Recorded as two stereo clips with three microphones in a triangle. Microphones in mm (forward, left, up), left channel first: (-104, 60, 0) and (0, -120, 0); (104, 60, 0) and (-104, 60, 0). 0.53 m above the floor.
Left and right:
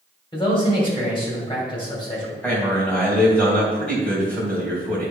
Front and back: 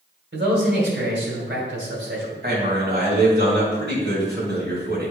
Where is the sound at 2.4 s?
155° right, 2.5 m.